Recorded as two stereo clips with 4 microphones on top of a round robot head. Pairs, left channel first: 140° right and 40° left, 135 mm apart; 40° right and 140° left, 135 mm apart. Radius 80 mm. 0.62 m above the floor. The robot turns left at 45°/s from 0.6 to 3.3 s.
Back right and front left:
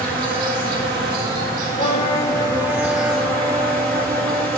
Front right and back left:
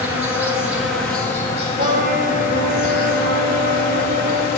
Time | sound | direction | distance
0.0 | an insect | 60° left | 3.5 m
1.8 | a trumpet | straight behind | 1.3 m